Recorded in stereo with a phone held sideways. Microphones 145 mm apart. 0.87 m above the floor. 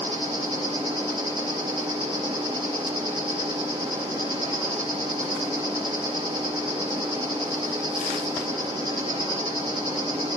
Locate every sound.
0.0 s an insect: 35° right (ahead or behind), 4 m